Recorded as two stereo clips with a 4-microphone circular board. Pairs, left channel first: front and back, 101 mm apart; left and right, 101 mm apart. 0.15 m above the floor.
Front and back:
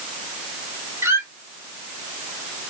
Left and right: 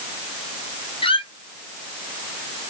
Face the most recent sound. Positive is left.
turn(degrees=115)